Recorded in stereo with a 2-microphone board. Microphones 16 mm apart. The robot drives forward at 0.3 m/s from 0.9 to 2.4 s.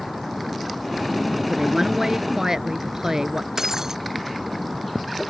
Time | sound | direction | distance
1.5 | a woman speaking | 35° right (ahead or behind) | ?
3.6 | breaking glass | 35° right (ahead or behind) | ?